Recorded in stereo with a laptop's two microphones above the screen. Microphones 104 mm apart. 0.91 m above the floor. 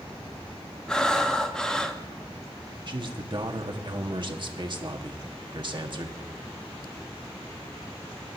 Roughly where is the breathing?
Centre.